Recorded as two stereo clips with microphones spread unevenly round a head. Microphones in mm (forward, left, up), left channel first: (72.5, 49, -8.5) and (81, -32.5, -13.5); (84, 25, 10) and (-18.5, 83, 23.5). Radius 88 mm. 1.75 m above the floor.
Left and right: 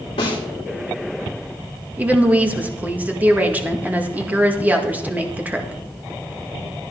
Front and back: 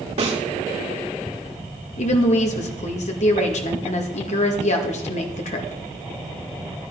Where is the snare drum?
130° left, 3 m.